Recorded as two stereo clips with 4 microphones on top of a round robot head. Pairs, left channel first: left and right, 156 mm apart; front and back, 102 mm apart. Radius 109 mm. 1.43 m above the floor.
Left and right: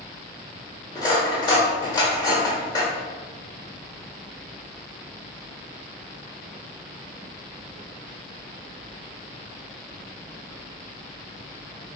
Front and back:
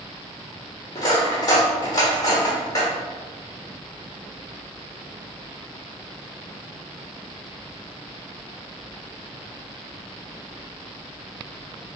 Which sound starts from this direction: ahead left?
Cutlery clinking, at 0.9 s.